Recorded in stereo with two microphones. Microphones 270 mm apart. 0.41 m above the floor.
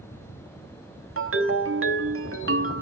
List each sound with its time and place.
1.2 s a ringtone: 45° right (ahead or behind), 0.9 m